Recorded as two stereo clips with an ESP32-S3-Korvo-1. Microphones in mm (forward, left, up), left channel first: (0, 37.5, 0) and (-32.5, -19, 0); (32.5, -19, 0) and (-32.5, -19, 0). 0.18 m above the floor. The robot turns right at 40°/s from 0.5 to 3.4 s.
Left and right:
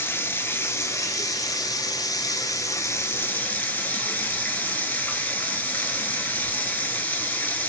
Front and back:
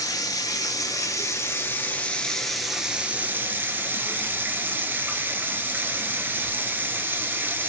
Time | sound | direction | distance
0.0 | running water | 5° left | 0.8 m